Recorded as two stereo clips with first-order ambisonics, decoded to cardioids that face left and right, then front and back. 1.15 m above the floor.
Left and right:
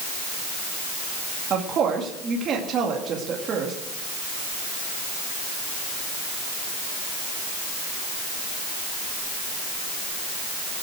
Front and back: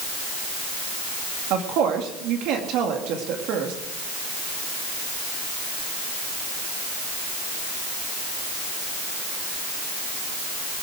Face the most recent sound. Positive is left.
turn(degrees=-145)